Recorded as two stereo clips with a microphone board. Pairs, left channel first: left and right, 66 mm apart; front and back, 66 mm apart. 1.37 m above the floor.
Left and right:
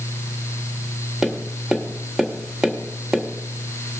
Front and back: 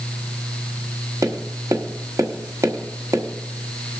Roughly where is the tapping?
Behind.